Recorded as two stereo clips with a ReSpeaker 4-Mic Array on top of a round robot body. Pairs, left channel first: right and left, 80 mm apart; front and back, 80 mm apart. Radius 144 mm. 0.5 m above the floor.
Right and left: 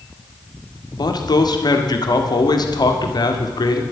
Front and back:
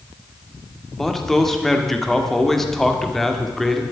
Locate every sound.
0.9 s a man speaking: 85° right, 1.8 m